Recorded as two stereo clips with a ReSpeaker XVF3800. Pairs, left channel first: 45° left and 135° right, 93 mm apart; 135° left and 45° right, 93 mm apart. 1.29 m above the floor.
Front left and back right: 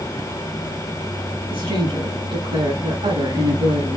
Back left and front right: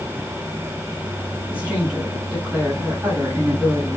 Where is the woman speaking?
120° right, 8 m.